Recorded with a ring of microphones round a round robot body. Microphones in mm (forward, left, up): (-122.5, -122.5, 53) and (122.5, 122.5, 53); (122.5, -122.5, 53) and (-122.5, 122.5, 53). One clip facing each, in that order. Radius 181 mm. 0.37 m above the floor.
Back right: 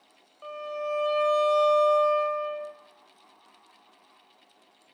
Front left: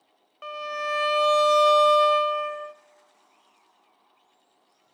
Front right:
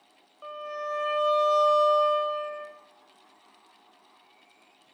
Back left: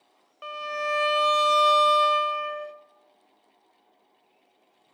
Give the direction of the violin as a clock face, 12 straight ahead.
9 o'clock.